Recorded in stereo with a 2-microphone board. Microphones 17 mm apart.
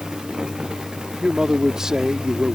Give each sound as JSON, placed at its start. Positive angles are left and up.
{"t": 1.2, "sound": "a man speaking", "side_deg": -40}